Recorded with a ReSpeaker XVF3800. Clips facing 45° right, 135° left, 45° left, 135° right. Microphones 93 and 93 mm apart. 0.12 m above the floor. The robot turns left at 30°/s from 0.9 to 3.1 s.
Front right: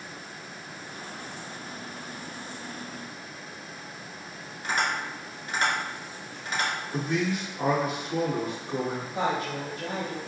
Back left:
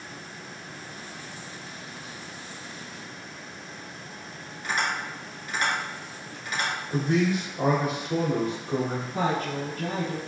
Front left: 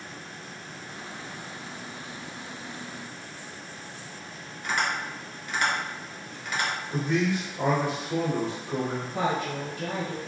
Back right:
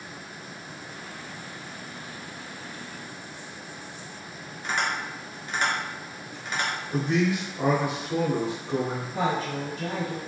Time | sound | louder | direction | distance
4.6 | tapping | even, even | 85° right | 1.3 m
6.9 | a man speaking | back left 6 dB, back right 2 dB | 140° left | 1.3 m
9.1 | a woman speaking | back left 2 dB, back right 1 dB | 130° left | 1.7 m